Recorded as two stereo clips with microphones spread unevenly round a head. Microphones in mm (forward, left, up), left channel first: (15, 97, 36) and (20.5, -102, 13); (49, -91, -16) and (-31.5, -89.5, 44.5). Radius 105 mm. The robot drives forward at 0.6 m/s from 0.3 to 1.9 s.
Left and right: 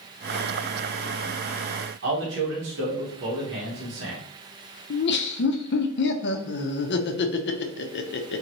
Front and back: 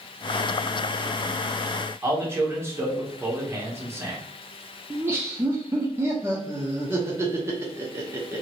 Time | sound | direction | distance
2.0 | a man speaking | 105° right | 1.3 m
4.9 | laughter | 80° left | 0.5 m